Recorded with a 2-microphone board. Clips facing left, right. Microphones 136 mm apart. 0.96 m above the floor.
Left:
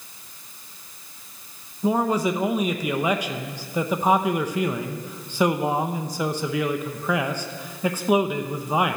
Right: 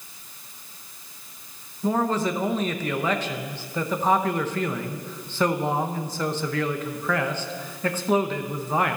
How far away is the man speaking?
About 0.9 m.